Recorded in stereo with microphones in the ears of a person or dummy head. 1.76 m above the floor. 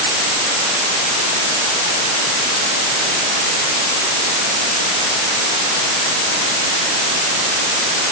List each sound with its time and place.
Only background noise.